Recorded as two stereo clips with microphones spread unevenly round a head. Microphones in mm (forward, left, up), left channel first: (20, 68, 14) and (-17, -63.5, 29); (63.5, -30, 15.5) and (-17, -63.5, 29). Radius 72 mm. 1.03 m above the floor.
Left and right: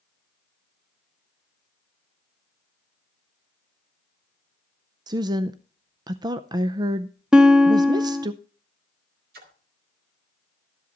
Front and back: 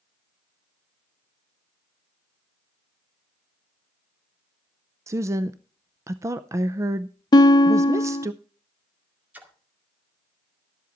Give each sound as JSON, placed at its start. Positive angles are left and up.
{"t": 5.1, "sound": "a woman speaking", "azimuth_deg": -135, "distance_m": 0.5}
{"t": 7.3, "sound": "a guitar", "azimuth_deg": -20, "distance_m": 0.8}
{"t": 9.3, "sound": "a splash", "azimuth_deg": -85, "distance_m": 2.0}